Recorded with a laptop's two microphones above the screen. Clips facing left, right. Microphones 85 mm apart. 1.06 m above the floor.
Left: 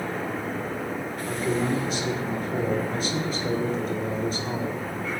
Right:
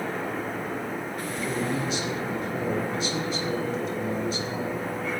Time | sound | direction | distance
1.2 | a man speaking | 45° left (ahead or behind) | 3 m